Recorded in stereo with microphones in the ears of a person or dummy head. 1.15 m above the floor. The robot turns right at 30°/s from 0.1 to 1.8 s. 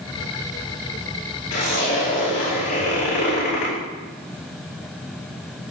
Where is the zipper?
50° left (ahead or behind), 5 m; by 3.7 s 40° left (ahead or behind), 5 m.